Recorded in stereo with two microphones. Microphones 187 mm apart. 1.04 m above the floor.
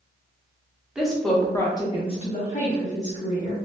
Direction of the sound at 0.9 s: 5° right (ahead or behind).